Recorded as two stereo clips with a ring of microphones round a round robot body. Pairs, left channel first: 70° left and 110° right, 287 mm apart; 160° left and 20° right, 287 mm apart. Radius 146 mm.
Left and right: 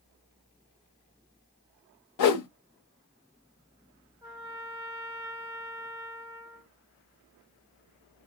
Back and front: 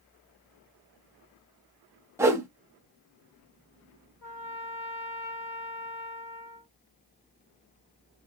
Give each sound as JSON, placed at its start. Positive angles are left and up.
{"t": 2.2, "sound": "a whoosh", "azimuth_deg": 60, "distance_m": 0.7}
{"t": 4.2, "sound": "a trumpet", "azimuth_deg": 170, "distance_m": 2.0}